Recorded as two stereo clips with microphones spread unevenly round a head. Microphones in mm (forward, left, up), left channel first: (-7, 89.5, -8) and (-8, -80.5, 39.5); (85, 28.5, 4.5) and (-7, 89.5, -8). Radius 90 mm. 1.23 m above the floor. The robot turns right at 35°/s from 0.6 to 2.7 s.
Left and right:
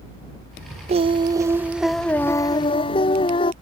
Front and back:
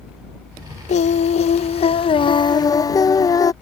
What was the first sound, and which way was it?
Singing, 40° right.